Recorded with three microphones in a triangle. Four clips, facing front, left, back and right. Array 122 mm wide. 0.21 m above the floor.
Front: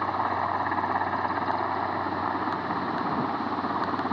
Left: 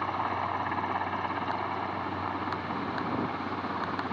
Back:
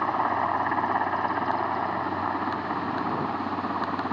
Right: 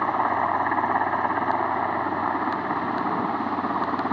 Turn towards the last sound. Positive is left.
turn(degrees=-85)